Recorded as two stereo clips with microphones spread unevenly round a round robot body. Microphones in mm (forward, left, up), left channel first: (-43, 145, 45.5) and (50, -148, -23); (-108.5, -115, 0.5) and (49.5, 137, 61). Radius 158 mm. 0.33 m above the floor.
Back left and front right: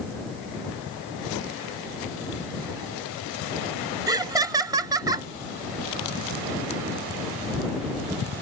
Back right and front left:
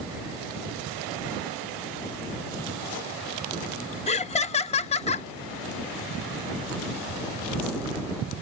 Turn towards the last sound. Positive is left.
turn(degrees=-115)